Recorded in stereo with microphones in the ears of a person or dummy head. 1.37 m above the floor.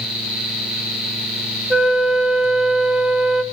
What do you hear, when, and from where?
1.7 s a flute: centre (ahead or behind), 1.1 m